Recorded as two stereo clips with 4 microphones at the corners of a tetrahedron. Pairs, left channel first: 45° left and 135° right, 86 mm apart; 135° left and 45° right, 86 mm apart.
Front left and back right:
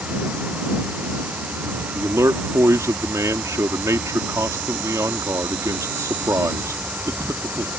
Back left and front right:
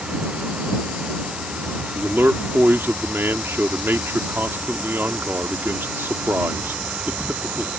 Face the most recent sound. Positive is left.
turn(degrees=-100)